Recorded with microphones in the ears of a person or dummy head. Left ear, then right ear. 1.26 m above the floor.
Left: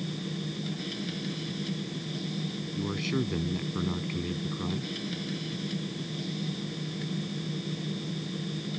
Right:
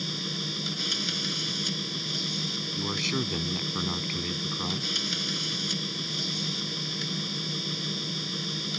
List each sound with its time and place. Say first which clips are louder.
0.0 s a machine running: right 7 dB; 50° right (ahead or behind)
2.8 s a man speaking: right 1 dB; 35° right (ahead or behind)